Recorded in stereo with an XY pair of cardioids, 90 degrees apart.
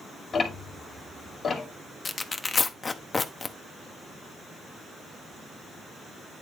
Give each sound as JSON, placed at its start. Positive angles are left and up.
{"t": 0.3, "sound": "ticking", "azimuth_deg": 50, "distance_m": 2.0}
{"t": 2.0, "sound": "tearing paper", "azimuth_deg": 35, "distance_m": 0.9}